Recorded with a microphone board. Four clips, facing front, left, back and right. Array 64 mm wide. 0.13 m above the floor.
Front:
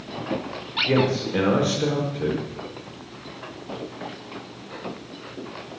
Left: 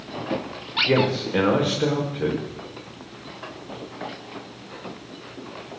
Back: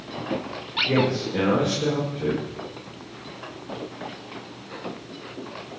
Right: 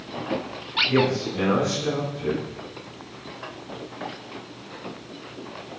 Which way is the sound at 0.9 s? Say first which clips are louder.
Left 1 dB, front 1 dB; 70° left.